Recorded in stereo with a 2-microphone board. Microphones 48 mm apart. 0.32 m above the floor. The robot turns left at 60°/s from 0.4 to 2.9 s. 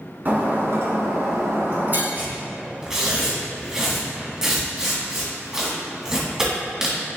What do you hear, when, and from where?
0.2 s breaking glass: 45° right, 1.4 m; by 2.0 s 140° right, 1.4 m
2.1 s tearing paper: 55° right (ahead or behind), 2.0 m; by 7.0 s 10° right (ahead or behind), 2.0 m